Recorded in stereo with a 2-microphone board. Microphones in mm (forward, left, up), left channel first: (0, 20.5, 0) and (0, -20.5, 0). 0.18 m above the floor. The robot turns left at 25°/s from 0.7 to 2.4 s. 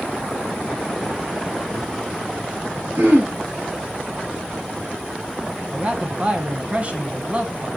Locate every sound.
3.0 s throat clearing: 70° right (ahead or behind), 3.5 m
5.7 s a man speaking: 35° right (ahead or behind), 1.2 m